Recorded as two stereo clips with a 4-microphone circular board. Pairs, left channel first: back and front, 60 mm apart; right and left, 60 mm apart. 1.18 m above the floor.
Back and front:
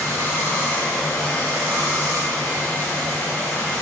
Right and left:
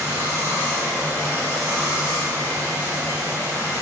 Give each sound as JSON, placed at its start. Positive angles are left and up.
{"t": 0.0, "sound": "running water", "azimuth_deg": 105, "distance_m": 4.0}